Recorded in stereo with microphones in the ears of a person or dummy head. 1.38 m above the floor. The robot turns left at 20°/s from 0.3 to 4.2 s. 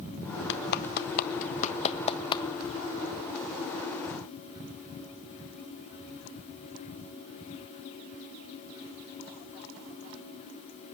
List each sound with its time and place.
0.5 s a clap: 65° left (ahead or behind), 1.2 m; by 2.4 s 25° left (ahead or behind), 1.2 m